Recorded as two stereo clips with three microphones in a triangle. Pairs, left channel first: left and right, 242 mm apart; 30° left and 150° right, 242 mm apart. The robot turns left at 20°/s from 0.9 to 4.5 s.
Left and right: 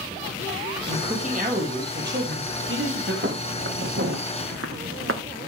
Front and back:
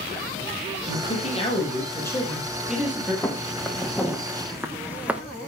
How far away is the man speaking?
About 5.5 m.